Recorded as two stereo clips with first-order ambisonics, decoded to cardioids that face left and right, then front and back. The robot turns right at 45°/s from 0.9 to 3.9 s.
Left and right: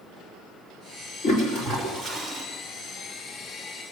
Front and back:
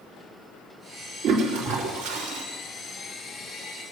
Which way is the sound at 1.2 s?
135° left.